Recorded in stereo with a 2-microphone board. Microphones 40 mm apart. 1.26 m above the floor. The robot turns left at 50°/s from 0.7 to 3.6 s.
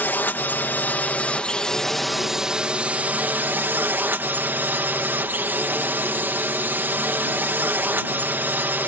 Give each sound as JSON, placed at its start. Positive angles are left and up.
{"t": 0.0, "sound": "a drone", "azimuth_deg": 70}